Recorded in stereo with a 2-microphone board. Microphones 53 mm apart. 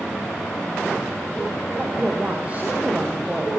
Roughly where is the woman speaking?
Right.